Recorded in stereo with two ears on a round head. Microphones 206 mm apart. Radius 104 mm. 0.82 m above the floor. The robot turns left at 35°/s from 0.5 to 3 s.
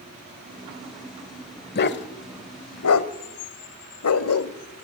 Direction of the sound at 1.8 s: 45° left (ahead or behind).